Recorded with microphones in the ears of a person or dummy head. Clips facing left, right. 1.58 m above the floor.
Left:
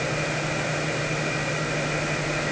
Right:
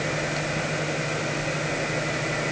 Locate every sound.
Only background noise.